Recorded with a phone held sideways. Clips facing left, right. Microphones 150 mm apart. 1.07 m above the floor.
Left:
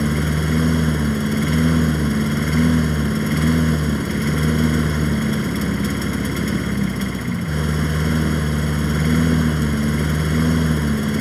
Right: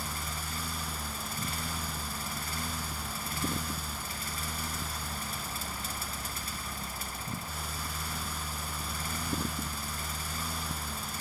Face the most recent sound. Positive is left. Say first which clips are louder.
# left 20 dB
turn(degrees=70)  # may be behind; listen again after turning